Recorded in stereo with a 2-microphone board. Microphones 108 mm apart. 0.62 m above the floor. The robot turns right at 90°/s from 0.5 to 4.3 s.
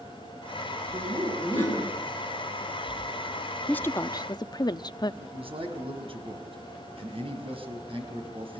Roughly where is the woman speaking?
Ahead.